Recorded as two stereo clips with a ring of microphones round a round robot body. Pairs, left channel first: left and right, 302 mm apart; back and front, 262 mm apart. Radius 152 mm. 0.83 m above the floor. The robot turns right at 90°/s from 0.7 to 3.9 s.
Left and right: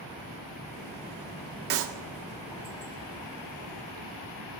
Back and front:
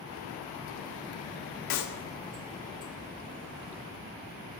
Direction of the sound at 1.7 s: 150° right.